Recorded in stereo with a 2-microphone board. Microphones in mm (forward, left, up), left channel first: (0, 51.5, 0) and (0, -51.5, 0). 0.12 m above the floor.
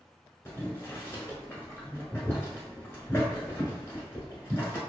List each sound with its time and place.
0.5 s boiling: 25° left (ahead or behind), 1.0 m